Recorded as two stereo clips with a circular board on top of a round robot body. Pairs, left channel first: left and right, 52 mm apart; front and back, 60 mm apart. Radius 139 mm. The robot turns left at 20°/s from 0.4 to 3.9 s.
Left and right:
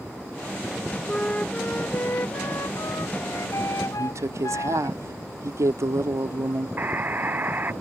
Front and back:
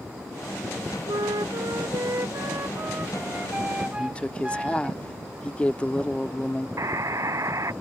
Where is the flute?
165° left; by 4.9 s 105° left.